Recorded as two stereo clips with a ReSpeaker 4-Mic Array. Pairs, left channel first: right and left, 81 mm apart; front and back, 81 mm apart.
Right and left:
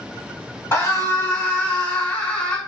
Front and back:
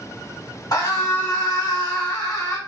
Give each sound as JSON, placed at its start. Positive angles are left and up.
{"t": 0.7, "sound": "a scream", "azimuth_deg": -35, "distance_m": 2.0}